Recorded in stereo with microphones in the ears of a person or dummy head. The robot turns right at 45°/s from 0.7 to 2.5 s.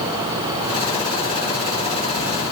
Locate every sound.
Only background noise.